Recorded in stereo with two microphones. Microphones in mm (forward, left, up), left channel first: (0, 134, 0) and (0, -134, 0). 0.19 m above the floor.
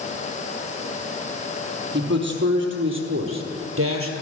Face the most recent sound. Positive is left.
turn(degrees=-55)  # may be behind; listen again after turning